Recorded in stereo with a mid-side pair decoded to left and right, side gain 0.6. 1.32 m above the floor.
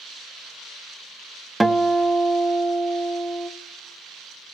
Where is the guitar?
10° right, 0.6 m.